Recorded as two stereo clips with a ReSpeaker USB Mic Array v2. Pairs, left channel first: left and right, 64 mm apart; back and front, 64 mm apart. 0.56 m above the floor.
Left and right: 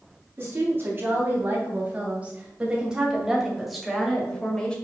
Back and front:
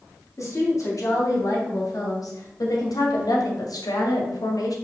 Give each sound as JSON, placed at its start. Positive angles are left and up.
{"t": 0.4, "sound": "a woman speaking", "azimuth_deg": -145, "distance_m": 3.5}